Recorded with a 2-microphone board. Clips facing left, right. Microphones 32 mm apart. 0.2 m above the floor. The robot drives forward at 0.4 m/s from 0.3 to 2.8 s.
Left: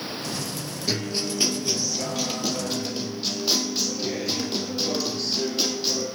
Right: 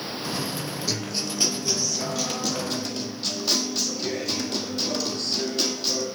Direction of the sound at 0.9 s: 20° left (ahead or behind).